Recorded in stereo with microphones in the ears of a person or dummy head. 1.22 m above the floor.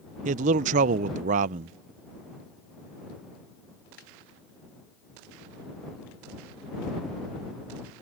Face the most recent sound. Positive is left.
turn(degrees=-45)  # may be behind; listen again after turning